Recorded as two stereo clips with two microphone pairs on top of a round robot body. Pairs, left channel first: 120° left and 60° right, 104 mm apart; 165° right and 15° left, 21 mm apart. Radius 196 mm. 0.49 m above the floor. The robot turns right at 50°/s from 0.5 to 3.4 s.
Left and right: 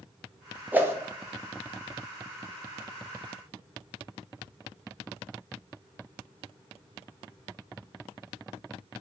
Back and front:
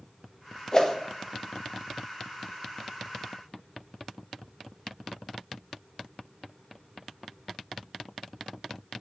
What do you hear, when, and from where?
0.7 s a whoosh: 120° right, 0.9 m; by 0.9 s 110° right, 0.9 m